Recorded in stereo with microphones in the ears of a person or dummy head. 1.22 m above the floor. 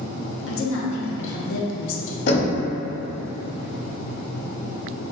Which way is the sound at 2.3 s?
60° left (ahead or behind).